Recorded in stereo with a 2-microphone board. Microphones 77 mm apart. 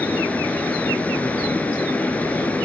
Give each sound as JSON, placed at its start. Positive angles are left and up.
{"t": 0.0, "sound": "running water", "side_deg": 20, "distance_m": 1.0}